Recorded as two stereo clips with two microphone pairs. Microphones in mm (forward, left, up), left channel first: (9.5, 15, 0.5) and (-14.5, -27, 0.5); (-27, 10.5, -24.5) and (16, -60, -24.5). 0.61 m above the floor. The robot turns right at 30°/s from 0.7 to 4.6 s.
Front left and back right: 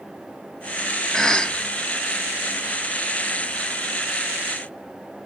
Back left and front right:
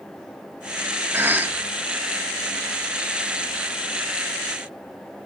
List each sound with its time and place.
1.1 s a cough: 15° right, 0.8 m; by 1.6 s straight ahead, 0.8 m